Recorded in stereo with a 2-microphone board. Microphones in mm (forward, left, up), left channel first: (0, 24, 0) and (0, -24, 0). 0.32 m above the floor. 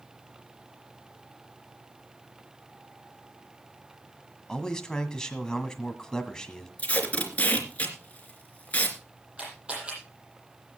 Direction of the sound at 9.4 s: 20° right (ahead or behind).